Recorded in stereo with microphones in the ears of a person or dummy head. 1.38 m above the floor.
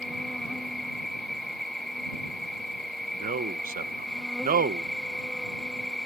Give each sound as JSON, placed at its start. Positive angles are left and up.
{"t": 0.0, "sound": "an insect", "side_deg": 5}
{"t": 3.1, "sound": "a man speaking", "side_deg": -35}